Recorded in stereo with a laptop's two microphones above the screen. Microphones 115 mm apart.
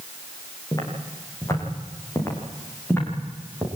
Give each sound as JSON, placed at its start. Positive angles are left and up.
{"t": 0.7, "sound": "footsteps", "side_deg": 30, "distance_m": 8.5}